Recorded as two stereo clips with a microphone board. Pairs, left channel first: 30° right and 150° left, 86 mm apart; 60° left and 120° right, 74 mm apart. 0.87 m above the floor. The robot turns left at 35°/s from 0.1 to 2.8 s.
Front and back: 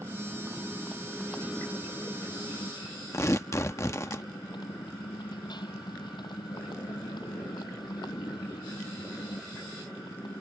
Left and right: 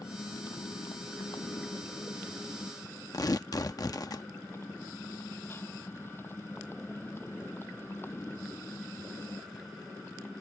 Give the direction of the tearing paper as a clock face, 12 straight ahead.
11 o'clock.